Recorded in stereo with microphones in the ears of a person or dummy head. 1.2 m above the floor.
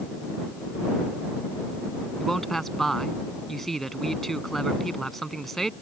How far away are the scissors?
I don't hear scissors.